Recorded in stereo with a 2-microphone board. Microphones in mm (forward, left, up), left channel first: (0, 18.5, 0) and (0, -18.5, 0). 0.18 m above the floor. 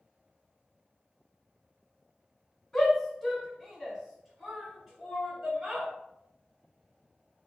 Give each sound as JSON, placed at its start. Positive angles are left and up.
{"t": 2.7, "sound": "a shout", "side_deg": 15, "distance_m": 1.6}